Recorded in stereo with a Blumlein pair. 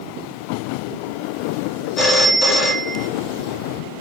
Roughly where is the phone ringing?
Ahead.